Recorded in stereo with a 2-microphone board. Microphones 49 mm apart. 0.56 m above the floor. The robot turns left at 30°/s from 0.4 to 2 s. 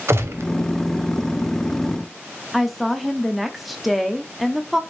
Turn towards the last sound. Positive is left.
turn(degrees=0)  # may be behind; listen again after turning